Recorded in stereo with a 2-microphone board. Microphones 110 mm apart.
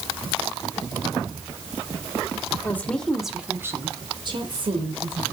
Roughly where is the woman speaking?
Centre.